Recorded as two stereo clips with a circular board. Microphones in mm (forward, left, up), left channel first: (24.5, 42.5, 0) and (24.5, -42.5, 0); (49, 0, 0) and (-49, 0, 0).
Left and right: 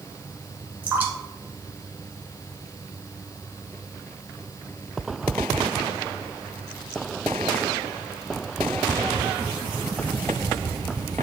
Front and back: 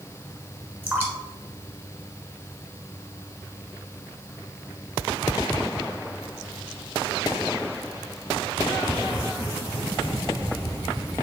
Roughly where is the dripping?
Behind right.